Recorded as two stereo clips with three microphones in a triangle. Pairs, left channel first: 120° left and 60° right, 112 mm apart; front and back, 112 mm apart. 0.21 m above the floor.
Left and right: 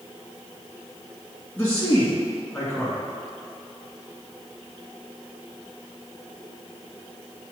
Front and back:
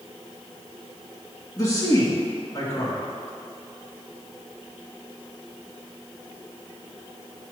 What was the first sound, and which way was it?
A man speaking, 45° left.